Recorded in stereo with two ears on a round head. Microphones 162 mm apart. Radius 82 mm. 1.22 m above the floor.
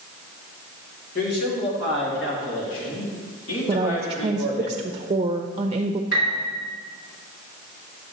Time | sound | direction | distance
1.1 | a man speaking | 55° left (ahead or behind) | 3 m
3.7 | a woman speaking | 30° right (ahead or behind) | 0.5 m
6.1 | a piano | 55° left (ahead or behind) | 3.5 m